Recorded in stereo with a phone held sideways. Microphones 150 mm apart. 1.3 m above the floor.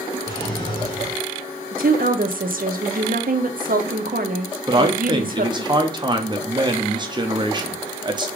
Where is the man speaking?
30° right (ahead or behind), 0.7 m.